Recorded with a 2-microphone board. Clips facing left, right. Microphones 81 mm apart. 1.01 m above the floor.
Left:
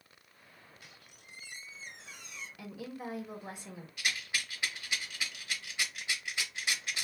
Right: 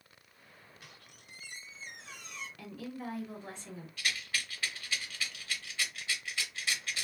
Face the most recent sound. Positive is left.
turn(degrees=15)  # may be behind; listen again after turning